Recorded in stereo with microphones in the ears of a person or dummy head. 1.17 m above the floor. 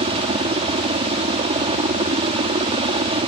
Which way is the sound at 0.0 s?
35° right (ahead or behind).